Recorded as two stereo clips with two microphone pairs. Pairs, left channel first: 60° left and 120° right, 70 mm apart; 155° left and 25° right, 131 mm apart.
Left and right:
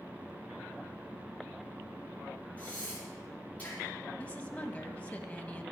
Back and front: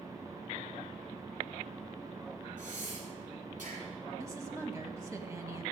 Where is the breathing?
10° right, 7 m.